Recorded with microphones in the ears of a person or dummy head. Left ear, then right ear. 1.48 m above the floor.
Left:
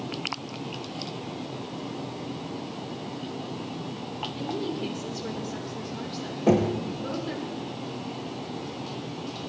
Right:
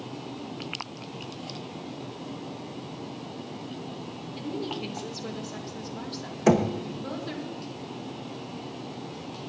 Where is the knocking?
55° right (ahead or behind), 1.0 m.